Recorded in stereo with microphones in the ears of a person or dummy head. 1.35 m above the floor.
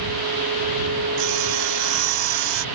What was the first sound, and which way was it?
Sawing, 75° right (ahead or behind).